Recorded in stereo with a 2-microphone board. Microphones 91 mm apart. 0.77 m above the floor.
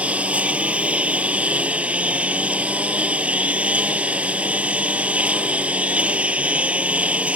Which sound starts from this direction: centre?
A lawn mower, at 0.0 s.